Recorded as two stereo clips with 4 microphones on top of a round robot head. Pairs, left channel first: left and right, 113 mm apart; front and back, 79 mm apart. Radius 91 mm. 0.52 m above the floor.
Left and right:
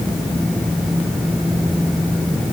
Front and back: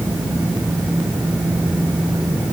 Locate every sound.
Only background noise.